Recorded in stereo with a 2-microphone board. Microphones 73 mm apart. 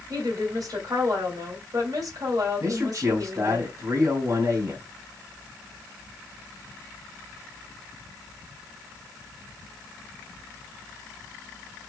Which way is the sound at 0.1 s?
55° right (ahead or behind).